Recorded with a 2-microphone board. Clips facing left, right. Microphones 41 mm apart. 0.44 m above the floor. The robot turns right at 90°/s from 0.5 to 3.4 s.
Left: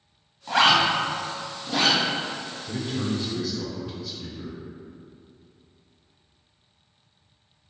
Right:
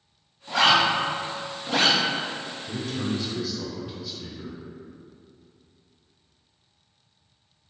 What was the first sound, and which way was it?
A zipper, 60° left (ahead or behind).